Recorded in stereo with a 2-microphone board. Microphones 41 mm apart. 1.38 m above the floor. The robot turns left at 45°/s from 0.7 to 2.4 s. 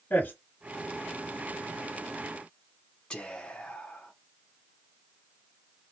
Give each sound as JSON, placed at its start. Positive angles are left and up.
{"t": 0.1, "sound": "a man speaking", "side_deg": 40, "distance_m": 1.8}
{"t": 3.1, "sound": "whispering", "side_deg": 20, "distance_m": 0.7}